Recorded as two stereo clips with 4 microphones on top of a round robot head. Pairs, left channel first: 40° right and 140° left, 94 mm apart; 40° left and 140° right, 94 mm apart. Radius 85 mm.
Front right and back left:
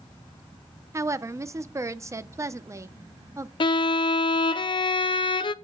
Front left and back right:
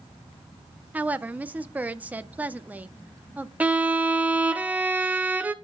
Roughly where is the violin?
Ahead right.